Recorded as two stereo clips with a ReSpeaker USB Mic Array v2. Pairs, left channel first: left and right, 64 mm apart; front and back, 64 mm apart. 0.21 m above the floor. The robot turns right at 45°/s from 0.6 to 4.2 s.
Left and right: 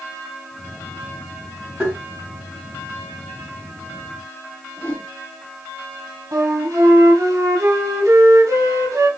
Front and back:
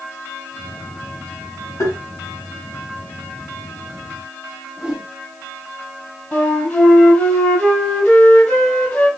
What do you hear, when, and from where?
1.8 s tapping: 15° right, 3 m; by 2.0 s 5° right, 3 m
4.8 s a whoosh: 120° left, 1.1 m
6.3 s a flute: 80° right, 2.0 m